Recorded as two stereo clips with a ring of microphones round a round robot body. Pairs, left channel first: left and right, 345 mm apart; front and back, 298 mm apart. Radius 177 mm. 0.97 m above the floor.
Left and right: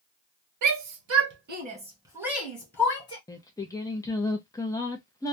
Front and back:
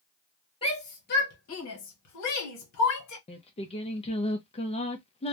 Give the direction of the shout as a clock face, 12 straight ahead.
2 o'clock.